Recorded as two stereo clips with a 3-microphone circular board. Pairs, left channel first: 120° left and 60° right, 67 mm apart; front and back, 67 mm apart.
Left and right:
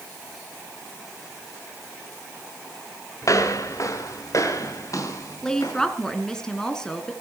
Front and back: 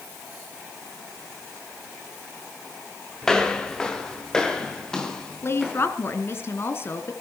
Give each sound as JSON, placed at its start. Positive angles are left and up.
{"t": 3.2, "sound": "footsteps", "azimuth_deg": 80, "distance_m": 3.0}
{"t": 5.4, "sound": "a woman speaking", "azimuth_deg": 40, "distance_m": 2.5}